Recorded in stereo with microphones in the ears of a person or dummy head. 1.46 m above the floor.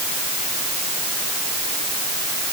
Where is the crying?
No crying in this recording.